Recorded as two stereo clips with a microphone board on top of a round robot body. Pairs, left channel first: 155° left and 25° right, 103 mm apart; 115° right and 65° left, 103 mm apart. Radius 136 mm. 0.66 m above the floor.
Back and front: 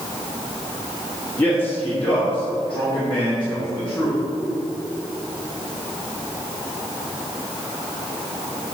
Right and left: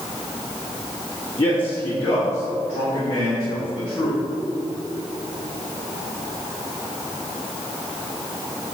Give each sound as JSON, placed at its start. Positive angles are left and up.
{"t": 1.4, "sound": "a man speaking", "azimuth_deg": -135, "distance_m": 1.7}